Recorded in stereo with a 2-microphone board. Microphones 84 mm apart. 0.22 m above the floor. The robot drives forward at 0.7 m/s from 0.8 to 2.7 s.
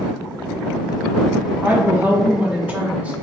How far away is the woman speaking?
About 1.3 m.